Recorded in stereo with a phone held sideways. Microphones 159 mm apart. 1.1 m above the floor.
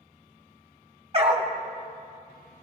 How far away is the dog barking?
About 0.9 m.